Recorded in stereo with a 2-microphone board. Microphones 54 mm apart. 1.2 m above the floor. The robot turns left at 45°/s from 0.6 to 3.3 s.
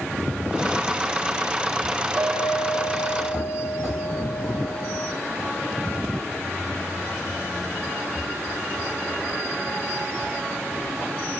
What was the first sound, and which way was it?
A clink, 70° right.